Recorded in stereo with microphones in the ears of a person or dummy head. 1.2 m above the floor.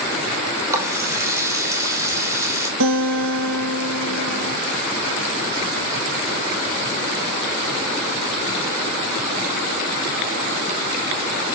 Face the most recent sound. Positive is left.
turn(degrees=-75)  # may be behind; listen again after turning